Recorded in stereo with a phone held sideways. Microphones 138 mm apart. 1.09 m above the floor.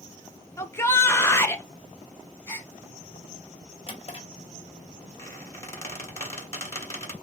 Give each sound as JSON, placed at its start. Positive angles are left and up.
{"t": 0.6, "sound": "a shout", "side_deg": 20, "distance_m": 0.8}
{"t": 2.5, "sound": "a gasp", "side_deg": 15, "distance_m": 1.5}
{"t": 3.9, "sound": "a drawer", "side_deg": 45, "distance_m": 1.4}
{"t": 5.2, "sound": "a squeak", "side_deg": 20, "distance_m": 1.7}